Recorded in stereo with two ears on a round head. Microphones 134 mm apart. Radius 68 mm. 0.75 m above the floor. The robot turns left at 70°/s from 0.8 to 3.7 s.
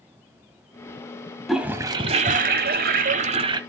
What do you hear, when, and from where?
1.5 s a toilet flushing: straight ahead, 1.0 m; by 3.6 s 145° right, 1.0 m